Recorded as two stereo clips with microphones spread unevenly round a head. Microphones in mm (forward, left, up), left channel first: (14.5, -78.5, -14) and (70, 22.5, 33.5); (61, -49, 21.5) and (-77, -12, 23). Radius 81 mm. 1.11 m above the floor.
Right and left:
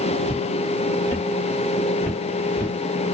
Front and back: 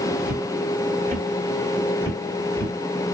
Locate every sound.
0.2 s footsteps: 165° left, 1.6 m; by 2.8 s 60° right, 1.1 m